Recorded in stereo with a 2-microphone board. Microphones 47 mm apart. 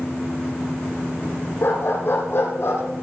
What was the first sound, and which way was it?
A dog barking, 55° left (ahead or behind).